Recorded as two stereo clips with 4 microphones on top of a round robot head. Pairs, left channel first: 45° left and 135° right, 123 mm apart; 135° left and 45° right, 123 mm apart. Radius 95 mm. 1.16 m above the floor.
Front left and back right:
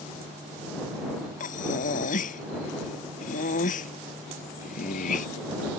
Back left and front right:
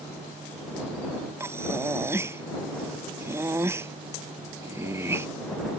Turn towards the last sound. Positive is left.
turn(degrees=25)